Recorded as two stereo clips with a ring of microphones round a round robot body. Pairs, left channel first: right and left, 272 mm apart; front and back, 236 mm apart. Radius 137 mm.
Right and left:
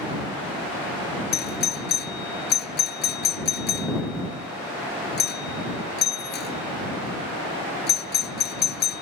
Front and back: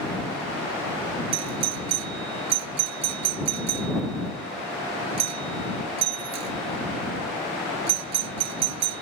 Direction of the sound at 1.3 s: 145° right.